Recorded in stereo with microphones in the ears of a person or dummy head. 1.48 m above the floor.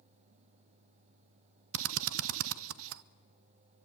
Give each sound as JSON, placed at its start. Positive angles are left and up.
{"t": 1.7, "sound": "a drill", "side_deg": -80, "distance_m": 0.6}